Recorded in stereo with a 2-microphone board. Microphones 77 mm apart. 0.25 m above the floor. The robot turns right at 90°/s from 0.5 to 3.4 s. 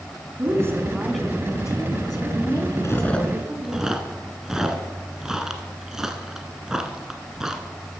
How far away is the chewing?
About 1.4 m.